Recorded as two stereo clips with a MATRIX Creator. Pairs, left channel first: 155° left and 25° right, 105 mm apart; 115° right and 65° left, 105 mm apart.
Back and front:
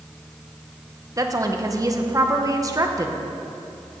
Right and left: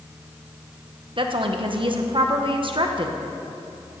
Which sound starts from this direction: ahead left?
A woman speaking, at 1.2 s.